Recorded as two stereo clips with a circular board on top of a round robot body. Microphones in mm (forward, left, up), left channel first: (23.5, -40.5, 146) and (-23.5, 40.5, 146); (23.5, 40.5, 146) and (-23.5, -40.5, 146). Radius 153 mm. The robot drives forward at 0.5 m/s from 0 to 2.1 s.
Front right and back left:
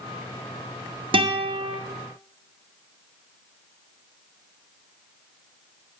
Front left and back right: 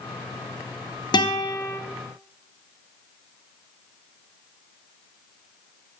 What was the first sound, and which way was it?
A guitar, 95° left.